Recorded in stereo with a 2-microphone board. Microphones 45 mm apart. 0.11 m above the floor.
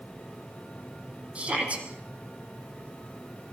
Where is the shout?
30° right (ahead or behind), 4.5 m.